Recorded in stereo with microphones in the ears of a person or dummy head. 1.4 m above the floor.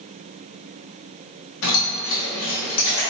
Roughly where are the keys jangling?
Left.